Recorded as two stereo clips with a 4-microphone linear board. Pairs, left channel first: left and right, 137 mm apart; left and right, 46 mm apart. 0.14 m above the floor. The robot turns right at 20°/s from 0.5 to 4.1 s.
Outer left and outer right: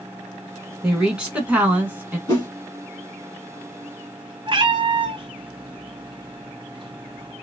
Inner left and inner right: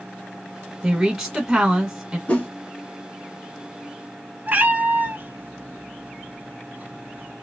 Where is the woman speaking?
5° right (ahead or behind), 1.1 m; by 2.2 s 15° right (ahead or behind), 1.1 m.